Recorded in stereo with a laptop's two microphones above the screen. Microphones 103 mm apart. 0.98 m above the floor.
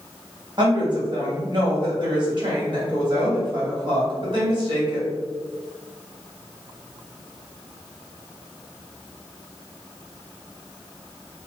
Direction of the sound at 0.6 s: 45° right (ahead or behind).